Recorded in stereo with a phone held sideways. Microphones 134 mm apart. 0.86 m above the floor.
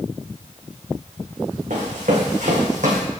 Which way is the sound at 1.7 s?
65° right (ahead or behind).